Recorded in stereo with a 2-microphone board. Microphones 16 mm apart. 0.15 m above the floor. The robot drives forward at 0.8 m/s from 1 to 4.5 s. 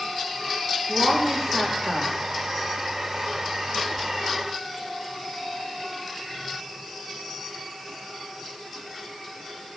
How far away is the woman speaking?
About 6.5 m.